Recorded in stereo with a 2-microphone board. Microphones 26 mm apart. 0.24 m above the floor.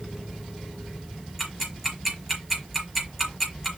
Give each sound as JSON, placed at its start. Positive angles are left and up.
{"t": 1.4, "sound": "ticking", "side_deg": -10, "distance_m": 4.0}